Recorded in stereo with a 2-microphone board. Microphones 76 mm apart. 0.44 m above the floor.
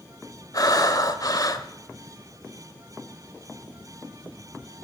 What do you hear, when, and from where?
0.5 s breathing: 55° left (ahead or behind), 1.4 m